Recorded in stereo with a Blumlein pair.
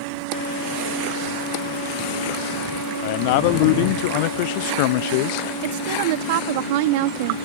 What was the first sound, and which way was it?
A man speaking, 45° left.